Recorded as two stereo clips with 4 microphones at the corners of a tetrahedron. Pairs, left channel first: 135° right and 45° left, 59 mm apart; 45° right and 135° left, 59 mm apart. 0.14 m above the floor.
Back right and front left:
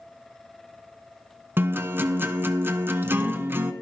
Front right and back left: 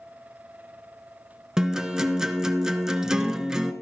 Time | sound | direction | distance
1.6 | a guitar | 60° left | 0.9 m